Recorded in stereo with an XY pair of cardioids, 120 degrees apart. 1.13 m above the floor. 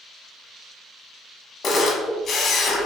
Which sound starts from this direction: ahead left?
A camera shutter, at 1.6 s.